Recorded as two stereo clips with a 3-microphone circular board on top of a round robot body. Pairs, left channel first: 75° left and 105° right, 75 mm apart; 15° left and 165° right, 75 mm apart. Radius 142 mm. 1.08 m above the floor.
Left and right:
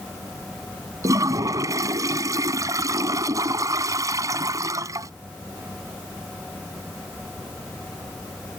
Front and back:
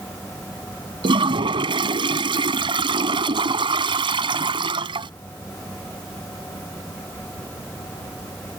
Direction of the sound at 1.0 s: 155° right.